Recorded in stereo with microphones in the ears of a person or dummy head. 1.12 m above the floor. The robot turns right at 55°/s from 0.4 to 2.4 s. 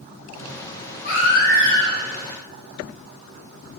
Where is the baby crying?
55° left, 1.6 m; by 2.0 s 105° left, 1.6 m.